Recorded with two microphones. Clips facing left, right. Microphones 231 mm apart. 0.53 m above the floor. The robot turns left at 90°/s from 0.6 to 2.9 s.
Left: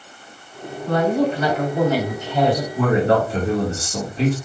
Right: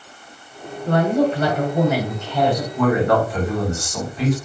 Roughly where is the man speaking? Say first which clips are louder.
Right 1 dB; left.